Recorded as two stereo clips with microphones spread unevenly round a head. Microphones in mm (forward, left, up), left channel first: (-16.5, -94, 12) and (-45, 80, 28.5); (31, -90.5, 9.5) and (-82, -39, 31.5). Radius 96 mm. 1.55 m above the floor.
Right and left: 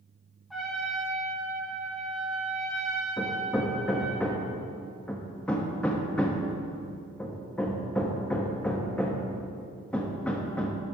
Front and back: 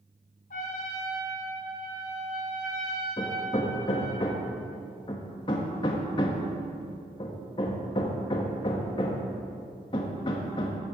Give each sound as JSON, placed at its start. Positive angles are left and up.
{"t": 0.5, "sound": "a trumpet", "azimuth_deg": 10, "distance_m": 1.5}
{"t": 3.2, "sound": "hammering", "azimuth_deg": 10, "distance_m": 0.9}